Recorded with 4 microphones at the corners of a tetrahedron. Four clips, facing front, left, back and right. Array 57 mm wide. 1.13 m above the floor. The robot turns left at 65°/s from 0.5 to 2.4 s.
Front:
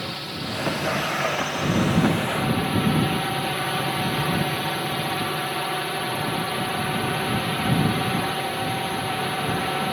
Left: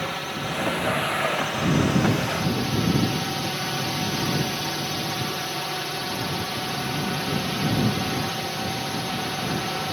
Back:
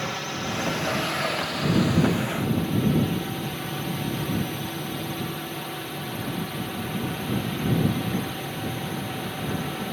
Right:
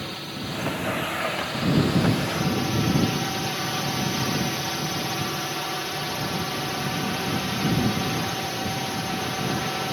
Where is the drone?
120° left; by 9.9 s 5° right.